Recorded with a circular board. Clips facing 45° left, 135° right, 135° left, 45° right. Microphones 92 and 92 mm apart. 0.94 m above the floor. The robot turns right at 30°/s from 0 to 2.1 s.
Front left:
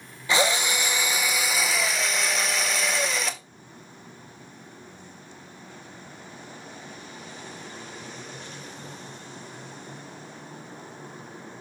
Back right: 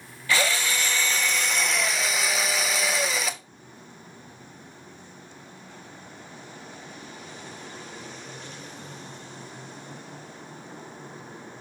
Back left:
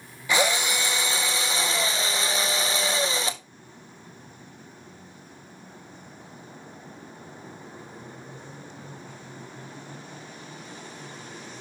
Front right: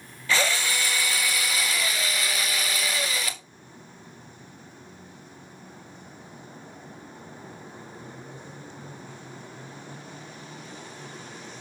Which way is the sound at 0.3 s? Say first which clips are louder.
Front left 2 dB, back left 2 dB; 85° left.